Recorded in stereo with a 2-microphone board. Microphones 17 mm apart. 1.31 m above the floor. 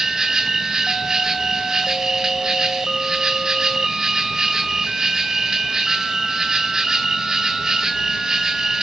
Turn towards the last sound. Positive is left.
turn(degrees=-45)  # may be behind; listen again after turning